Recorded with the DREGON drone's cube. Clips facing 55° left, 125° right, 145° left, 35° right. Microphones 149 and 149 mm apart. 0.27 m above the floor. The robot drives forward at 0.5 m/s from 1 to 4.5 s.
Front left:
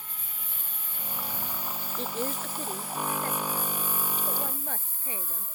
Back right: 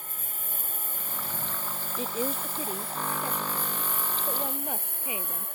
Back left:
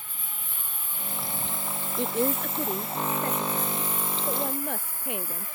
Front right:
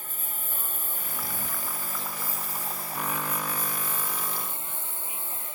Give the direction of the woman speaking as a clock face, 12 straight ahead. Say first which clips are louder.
Back right 2 dB, back left 12 dB; 7 o'clock.